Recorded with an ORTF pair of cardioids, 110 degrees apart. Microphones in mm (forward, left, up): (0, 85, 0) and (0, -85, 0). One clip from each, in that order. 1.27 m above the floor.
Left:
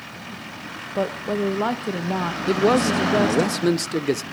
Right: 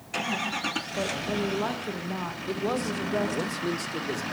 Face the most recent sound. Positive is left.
turn(degrees=45)